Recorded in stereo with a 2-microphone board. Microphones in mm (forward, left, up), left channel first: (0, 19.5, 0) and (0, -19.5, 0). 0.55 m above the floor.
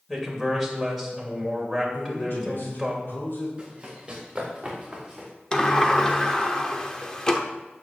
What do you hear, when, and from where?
0.1 s a man speaking: centre (ahead or behind), 2.5 m
1.9 s a man speaking: 65° left (ahead or behind), 2 m
3.6 s running footsteps: 25° right (ahead or behind), 4 m; by 5.3 s 5° right (ahead or behind), 4 m
5.5 s a sliding door: 20° left (ahead or behind), 0.8 m